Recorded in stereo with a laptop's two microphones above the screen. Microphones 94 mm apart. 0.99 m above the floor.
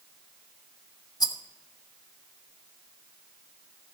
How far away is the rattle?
About 1.0 m.